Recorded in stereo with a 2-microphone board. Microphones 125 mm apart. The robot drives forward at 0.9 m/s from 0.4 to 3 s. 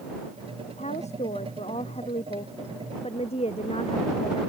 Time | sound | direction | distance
0.7 | a woman speaking | 60° left (ahead or behind) | ?